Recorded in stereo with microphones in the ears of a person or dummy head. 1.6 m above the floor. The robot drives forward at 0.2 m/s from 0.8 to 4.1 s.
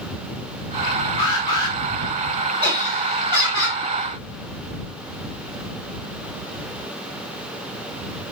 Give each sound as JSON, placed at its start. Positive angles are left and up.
{"t": 1.2, "sound": "an alarm", "side_deg": 25, "distance_m": 1.1}
{"t": 2.6, "sound": "laughter", "side_deg": -25, "distance_m": 1.6}